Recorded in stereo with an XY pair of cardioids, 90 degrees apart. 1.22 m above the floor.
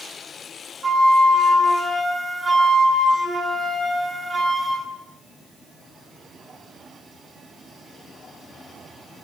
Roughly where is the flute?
Ahead right.